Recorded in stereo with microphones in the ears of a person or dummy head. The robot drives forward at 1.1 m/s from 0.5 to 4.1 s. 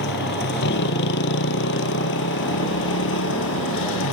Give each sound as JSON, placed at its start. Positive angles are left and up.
{"t": 0.0, "sound": "a motorcycle", "side_deg": 65}